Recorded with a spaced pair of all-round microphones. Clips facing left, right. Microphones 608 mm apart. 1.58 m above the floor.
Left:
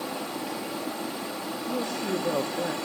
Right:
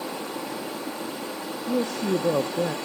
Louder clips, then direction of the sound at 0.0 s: Right 1 dB; 5° left (ahead or behind).